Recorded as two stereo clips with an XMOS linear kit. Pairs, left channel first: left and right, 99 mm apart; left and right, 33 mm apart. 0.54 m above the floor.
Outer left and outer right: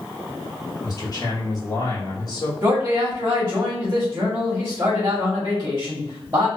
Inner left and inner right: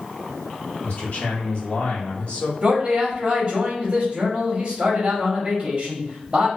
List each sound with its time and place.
0.8 s a man speaking: 40° left (ahead or behind), 1.0 m
2.6 s a man speaking: 25° right (ahead or behind), 1.0 m